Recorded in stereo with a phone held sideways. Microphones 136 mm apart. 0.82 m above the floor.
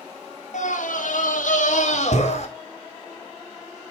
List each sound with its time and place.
0.5 s a scream: 65° left (ahead or behind), 1.2 m; by 2.5 s 55° left (ahead or behind), 2.0 m